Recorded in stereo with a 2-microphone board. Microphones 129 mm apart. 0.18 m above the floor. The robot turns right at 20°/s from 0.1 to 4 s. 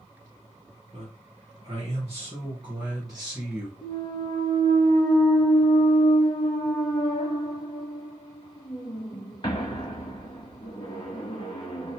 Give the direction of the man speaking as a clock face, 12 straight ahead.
2 o'clock.